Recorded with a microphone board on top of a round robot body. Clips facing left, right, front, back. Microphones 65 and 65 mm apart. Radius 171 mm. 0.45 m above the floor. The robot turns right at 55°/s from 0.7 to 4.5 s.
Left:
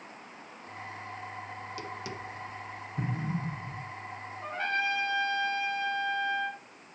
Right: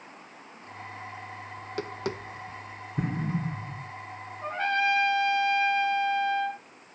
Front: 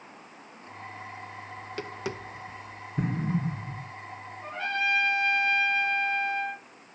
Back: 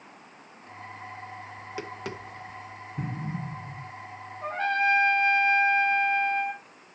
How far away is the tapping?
About 1.2 m.